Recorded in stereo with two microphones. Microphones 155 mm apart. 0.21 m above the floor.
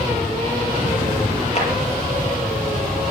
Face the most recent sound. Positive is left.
turn(degrees=45)  # may be behind; listen again after turning